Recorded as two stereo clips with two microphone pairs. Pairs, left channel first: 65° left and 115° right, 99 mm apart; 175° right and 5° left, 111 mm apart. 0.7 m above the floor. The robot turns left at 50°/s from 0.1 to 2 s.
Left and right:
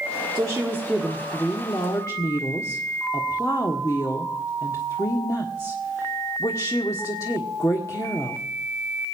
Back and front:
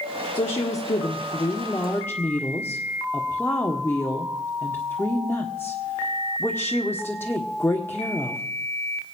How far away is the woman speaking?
About 1.4 m.